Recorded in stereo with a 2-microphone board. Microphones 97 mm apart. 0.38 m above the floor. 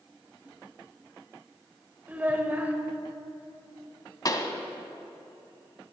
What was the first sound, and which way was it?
A child speaking, 20° right (ahead or behind).